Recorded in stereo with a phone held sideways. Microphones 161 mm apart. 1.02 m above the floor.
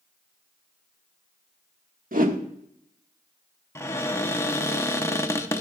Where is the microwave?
No microwave in this recording.